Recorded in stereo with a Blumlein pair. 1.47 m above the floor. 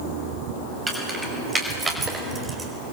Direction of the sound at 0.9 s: 15° right.